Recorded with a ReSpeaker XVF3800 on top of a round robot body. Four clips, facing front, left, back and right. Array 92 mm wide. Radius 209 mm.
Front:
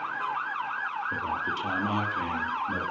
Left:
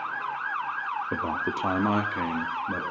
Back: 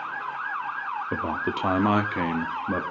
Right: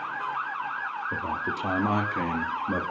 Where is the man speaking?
150° left, 1.9 m; by 2.8 s 155° right, 2.5 m.